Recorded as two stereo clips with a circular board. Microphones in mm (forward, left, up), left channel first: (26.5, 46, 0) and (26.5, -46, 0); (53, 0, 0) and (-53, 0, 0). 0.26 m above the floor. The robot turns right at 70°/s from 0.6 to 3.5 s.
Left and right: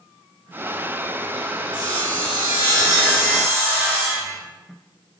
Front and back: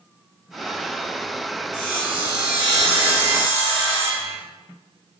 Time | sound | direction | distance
1.7 | sawing | 75° left | 1.1 m